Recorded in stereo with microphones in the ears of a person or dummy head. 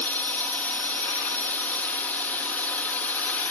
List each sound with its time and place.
0.0 s a drone: 10° left (ahead or behind)